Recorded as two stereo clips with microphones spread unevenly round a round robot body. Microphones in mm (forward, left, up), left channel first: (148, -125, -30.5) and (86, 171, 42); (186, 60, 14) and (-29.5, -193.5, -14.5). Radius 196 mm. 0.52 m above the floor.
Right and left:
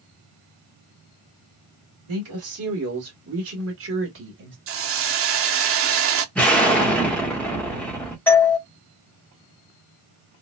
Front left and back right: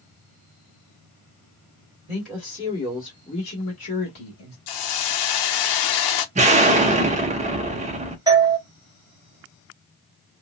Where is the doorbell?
95° right, 1.2 m.